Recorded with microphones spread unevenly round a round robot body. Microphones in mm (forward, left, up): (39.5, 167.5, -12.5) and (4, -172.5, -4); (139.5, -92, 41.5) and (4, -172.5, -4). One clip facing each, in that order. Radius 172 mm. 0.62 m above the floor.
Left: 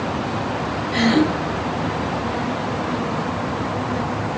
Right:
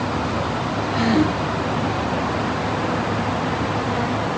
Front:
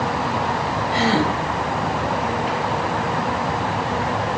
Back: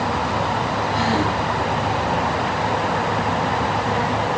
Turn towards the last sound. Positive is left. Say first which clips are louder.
# left 2 dB, front 3 dB
turn(degrees=50)